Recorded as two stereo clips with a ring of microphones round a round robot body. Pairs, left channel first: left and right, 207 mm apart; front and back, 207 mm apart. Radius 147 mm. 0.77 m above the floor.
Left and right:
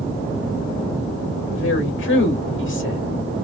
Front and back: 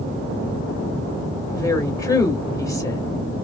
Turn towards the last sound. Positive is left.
turn(degrees=70)